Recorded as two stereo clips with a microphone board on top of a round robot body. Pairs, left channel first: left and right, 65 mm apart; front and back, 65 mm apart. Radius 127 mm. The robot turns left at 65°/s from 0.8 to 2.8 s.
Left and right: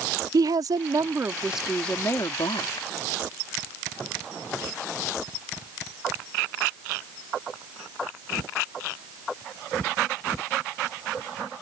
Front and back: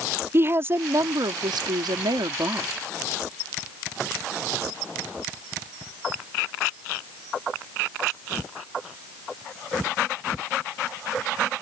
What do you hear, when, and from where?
0.3 s a woman speaking: 125° right; by 2.9 s 105° left